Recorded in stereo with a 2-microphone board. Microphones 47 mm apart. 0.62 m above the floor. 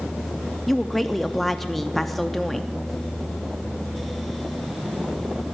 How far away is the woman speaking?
About 0.5 m.